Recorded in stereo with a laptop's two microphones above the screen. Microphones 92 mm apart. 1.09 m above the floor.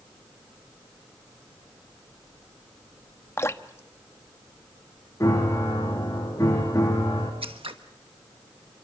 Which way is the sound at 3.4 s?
30° left (ahead or behind).